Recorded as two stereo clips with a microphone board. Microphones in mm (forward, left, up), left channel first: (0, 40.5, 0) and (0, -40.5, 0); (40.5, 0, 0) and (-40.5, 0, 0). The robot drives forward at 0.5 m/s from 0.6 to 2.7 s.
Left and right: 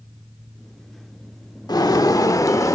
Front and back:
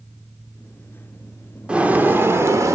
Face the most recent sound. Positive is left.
turn(degrees=130)